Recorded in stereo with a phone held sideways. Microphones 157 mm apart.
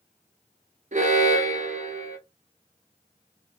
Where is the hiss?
I don't hear a hiss.